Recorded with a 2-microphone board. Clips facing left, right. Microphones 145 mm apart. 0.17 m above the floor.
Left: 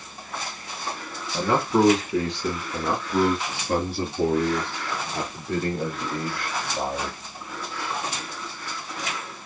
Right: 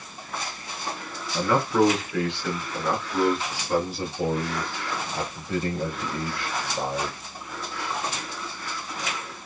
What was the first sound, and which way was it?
A man speaking, 25° left (ahead or behind).